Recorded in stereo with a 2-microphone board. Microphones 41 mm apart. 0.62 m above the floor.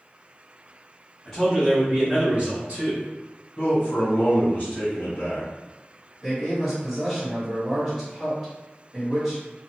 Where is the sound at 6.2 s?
Centre (ahead or behind), 1.7 m.